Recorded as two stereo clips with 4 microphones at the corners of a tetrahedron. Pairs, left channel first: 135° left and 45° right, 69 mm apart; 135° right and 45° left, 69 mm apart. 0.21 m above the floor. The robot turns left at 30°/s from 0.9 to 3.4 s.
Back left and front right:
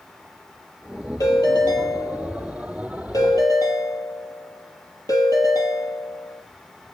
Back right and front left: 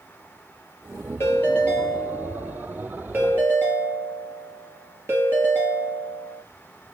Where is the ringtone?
170° left, 3.5 m; by 6.4 s 100° left, 3.5 m.